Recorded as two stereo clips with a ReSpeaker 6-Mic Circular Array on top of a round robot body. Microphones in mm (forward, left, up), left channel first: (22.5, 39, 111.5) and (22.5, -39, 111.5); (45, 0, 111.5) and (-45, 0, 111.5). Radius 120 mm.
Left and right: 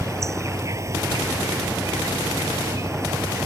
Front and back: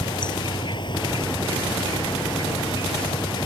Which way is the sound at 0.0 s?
40° right.